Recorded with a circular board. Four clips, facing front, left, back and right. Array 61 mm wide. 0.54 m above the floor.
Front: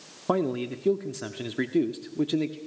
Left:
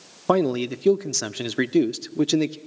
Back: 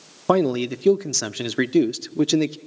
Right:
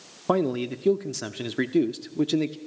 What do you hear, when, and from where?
0.3 s a man speaking: 150° left, 0.7 m